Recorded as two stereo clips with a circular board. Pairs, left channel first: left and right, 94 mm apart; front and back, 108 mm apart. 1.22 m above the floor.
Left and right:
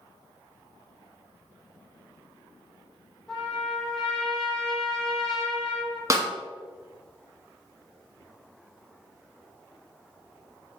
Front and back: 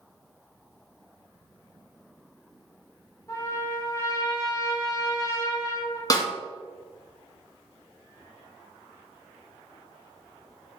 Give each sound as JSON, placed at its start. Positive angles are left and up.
{"t": 3.3, "sound": "a trumpet", "azimuth_deg": 5, "distance_m": 0.9}
{"t": 6.1, "sound": "a snare drum", "azimuth_deg": -40, "distance_m": 0.6}